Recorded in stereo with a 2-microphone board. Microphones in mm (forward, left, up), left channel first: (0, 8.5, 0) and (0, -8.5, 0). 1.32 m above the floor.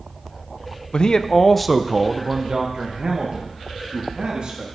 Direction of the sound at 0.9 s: 60° left (ahead or behind).